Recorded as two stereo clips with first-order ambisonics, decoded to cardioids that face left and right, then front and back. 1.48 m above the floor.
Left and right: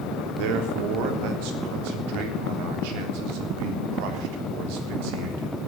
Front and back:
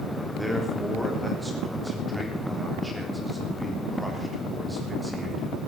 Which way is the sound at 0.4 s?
95° right.